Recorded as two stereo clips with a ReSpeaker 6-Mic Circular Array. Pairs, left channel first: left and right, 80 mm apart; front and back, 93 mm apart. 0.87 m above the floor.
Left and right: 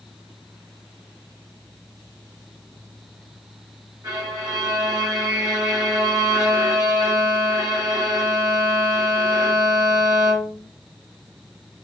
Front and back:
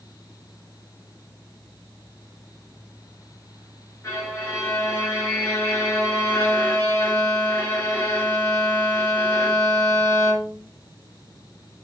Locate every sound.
4.0 s a violin: 55° right, 1.2 m